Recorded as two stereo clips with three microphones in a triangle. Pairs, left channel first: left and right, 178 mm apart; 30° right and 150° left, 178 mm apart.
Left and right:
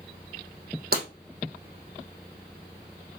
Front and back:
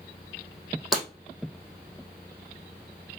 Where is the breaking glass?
120° right, 3.5 m.